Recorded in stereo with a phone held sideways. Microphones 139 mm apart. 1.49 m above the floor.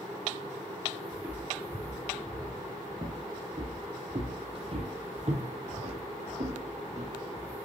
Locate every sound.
1.1 s footsteps: 10° right (ahead or behind), 2.5 m; by 7.5 s 55° right (ahead or behind), 3 m